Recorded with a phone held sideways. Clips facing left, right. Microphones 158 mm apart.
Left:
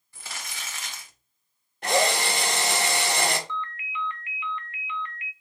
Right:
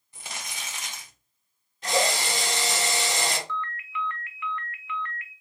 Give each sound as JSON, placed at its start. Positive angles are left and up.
{"t": 0.1, "sound": "crumpling", "side_deg": -20, "distance_m": 0.9}
{"t": 1.8, "sound": "a drill", "side_deg": 55, "distance_m": 0.7}
{"t": 3.5, "sound": "a ringtone", "side_deg": 20, "distance_m": 0.5}